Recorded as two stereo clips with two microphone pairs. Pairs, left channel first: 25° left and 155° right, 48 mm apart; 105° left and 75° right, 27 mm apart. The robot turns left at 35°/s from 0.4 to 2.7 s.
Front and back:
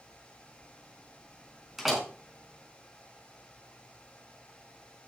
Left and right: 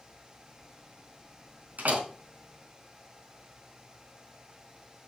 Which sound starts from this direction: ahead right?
A door slam, at 1.8 s.